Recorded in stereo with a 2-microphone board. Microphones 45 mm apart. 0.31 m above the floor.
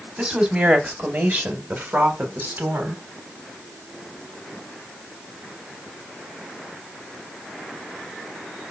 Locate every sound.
0.2 s a woman speaking: 25° right (ahead or behind), 1.6 m; by 3.0 s 50° right (ahead or behind), 2 m